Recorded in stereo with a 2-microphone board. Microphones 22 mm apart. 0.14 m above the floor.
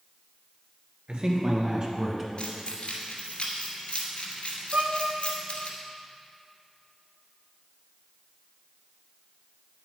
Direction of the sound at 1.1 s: 55° right (ahead or behind).